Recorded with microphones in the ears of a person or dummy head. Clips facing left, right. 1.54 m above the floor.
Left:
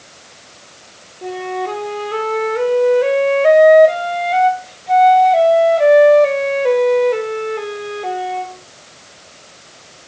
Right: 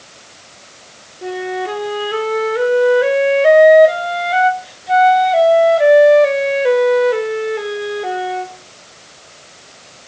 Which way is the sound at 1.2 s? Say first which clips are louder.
Right 1 dB; 10° right (ahead or behind).